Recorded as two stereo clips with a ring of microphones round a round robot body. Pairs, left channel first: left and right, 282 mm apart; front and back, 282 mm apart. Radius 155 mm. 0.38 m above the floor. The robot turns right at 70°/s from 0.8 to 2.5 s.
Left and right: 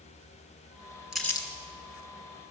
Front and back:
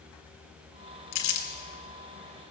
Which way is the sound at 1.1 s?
5° right.